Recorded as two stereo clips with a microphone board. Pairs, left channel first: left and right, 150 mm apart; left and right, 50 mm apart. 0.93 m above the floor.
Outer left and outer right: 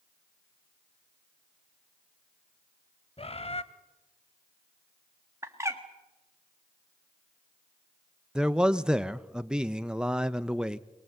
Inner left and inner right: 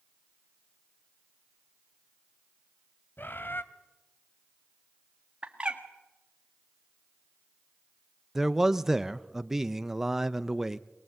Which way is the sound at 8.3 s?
5° right (ahead or behind).